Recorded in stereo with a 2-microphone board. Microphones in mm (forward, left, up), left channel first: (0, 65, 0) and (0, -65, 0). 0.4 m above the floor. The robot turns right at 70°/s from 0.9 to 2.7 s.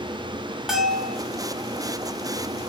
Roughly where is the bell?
Centre.